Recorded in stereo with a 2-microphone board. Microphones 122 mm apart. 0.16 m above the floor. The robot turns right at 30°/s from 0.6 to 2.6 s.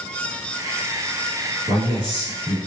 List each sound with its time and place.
1.7 s a man speaking: 40° right (ahead or behind), 1.7 m; by 2.6 s 35° right (ahead or behind), 1.7 m